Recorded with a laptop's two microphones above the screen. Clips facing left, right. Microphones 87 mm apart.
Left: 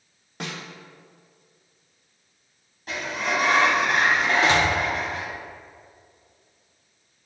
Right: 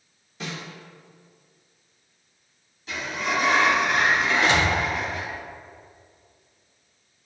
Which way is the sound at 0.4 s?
65° left (ahead or behind).